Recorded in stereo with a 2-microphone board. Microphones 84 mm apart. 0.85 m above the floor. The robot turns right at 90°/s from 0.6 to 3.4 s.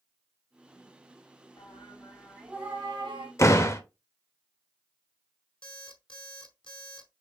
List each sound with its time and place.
1.6 s singing: 105° left, 3.5 m; by 3.3 s 95° right, 3.5 m
3.4 s a door slam: 35° left (ahead or behind), 0.7 m
5.6 s an alarm clock: 75° left (ahead or behind), 0.9 m